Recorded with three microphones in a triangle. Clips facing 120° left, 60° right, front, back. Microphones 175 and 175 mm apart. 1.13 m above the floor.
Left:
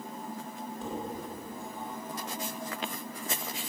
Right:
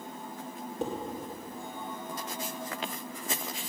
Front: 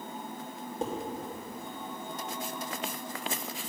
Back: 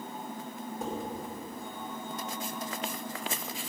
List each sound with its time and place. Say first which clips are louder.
0.8 s dishes clattering: right 5 dB, front 3 dB; 60° right, 2.5 m